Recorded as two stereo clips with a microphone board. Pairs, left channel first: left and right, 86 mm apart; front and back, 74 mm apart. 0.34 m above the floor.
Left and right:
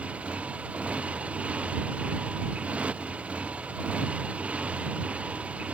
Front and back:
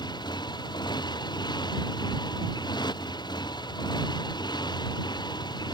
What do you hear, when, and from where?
0.0 s a motorcycle: 15° right